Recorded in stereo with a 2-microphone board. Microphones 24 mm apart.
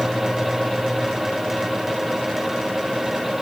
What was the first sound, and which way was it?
Only background noise.